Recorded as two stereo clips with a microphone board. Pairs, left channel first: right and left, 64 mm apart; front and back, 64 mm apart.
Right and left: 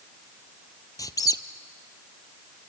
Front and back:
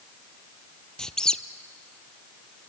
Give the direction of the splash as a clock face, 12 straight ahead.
No splash in this recording.